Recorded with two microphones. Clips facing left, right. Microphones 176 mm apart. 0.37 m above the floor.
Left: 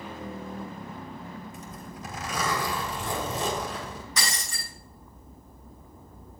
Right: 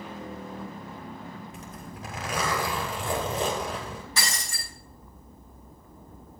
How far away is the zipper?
About 2.5 m.